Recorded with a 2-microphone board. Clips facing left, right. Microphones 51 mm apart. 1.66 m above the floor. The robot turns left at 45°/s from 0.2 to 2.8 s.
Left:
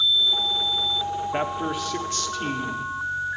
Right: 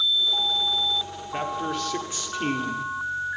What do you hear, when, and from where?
1.3 s a man speaking: 25° left, 1.0 m; by 2.9 s 40° right, 1.0 m